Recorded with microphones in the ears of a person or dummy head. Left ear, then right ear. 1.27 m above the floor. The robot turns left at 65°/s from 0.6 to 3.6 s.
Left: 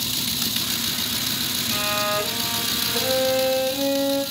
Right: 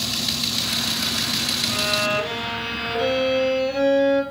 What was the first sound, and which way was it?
A violin, 5° left.